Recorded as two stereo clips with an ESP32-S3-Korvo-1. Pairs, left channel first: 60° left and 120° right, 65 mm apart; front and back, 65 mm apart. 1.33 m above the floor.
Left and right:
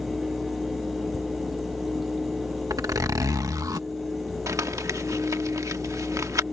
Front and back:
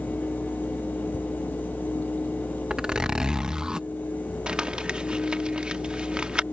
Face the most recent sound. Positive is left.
turn(degrees=-110)